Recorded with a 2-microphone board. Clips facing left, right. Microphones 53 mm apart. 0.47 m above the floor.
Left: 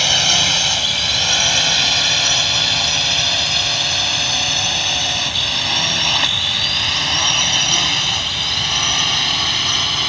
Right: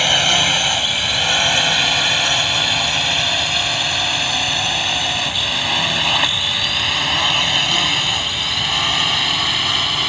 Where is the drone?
15° right (ahead or behind); by 10.1 s 5° right (ahead or behind).